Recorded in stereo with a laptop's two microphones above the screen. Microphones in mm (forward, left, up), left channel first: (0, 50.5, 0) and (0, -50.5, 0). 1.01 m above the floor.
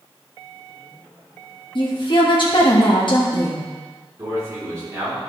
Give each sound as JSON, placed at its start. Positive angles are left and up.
{"t": 1.8, "sound": "a woman speaking", "side_deg": 55, "distance_m": 1.3}
{"t": 4.2, "sound": "a man speaking", "side_deg": -35, "distance_m": 2.5}